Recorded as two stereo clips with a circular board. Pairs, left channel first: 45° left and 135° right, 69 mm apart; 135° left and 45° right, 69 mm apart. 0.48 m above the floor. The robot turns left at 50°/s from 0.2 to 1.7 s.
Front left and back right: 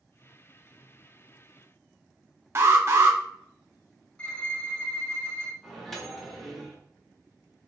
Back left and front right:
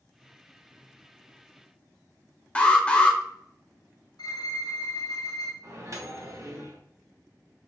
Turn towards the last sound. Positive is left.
turn(degrees=-40)